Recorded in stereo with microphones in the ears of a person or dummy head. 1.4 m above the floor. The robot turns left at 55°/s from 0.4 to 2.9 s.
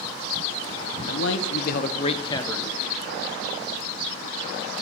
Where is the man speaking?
95° left, 1.0 m; by 2.7 s 5° left, 1.0 m.